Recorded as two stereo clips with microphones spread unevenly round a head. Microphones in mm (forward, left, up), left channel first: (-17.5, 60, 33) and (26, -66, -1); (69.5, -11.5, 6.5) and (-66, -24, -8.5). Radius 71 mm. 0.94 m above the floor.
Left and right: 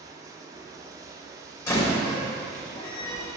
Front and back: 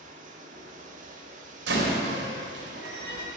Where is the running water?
140° right, 1.2 m.